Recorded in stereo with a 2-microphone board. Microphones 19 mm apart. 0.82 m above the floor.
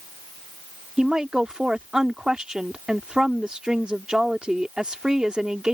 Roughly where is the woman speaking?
Right.